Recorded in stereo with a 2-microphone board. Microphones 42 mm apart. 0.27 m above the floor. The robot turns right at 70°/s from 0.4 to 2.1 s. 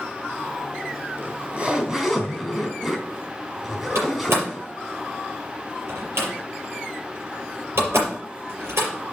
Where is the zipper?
75° right, 2.5 m; by 4.7 s 10° right, 2.5 m.